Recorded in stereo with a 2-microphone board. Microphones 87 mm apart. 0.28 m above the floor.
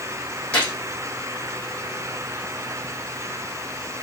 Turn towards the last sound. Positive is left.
turn(degrees=15)  # may be behind; listen again after turning